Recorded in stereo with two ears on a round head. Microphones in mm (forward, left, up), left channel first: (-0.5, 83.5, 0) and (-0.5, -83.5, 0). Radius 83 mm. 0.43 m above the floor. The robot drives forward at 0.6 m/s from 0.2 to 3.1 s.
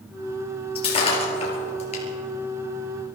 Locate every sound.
0.8 s breaking glass: 30° left (ahead or behind), 4.5 m; by 2.0 s 40° left (ahead or behind), 4 m